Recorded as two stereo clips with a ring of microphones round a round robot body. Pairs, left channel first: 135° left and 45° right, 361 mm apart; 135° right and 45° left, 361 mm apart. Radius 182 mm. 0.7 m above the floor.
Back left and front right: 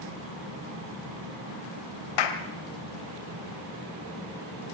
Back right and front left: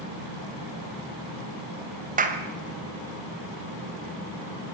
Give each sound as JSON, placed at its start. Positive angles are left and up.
{"t": 2.2, "sound": "a clap", "azimuth_deg": 115, "distance_m": 2.5}